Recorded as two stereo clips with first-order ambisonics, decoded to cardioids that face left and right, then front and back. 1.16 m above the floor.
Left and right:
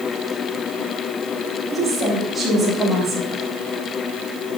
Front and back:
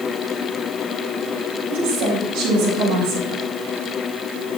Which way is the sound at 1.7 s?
175° left.